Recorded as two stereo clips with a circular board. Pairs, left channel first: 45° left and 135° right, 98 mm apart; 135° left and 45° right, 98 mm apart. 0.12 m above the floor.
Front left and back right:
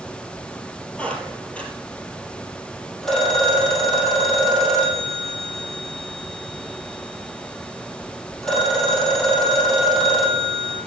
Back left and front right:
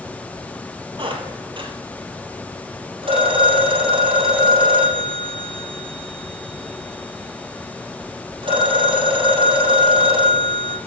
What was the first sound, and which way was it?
A squeak, 30° right.